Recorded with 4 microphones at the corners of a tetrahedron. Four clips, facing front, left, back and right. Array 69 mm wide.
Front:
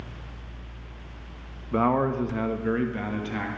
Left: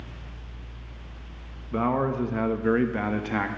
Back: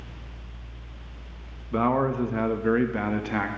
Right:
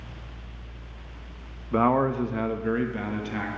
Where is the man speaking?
65° right, 0.5 m; by 3.5 s 130° left, 1.0 m.